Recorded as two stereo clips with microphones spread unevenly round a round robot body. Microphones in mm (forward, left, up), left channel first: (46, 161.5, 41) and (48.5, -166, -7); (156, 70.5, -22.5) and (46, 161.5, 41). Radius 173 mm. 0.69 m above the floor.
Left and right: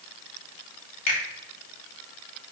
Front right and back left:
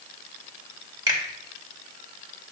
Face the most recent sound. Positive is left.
turn(degrees=75)